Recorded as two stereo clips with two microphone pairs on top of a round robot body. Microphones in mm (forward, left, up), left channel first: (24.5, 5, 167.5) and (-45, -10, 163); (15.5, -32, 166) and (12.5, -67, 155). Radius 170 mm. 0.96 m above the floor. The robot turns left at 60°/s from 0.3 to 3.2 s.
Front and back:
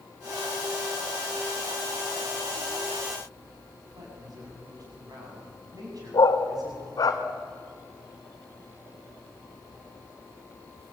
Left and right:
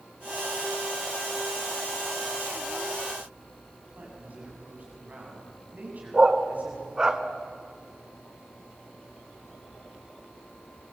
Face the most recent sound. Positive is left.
turn(degrees=-25)